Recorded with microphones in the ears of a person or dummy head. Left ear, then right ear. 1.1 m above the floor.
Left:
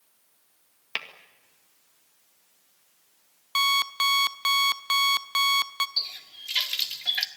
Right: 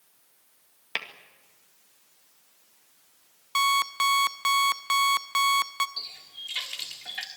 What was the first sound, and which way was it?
Tapping, centre (ahead or behind).